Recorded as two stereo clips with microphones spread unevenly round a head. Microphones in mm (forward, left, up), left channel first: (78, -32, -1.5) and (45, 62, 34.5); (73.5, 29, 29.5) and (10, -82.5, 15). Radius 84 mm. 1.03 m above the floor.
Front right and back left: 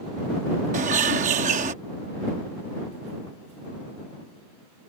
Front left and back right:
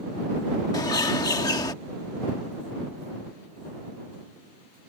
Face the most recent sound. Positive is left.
turn(degrees=130)